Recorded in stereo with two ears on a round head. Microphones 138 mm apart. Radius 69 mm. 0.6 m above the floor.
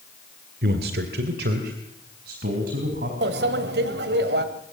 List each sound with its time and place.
0.6 s a man speaking: 65° right (ahead or behind), 1.9 m
3.2 s a microwave: 75° right (ahead or behind), 2 m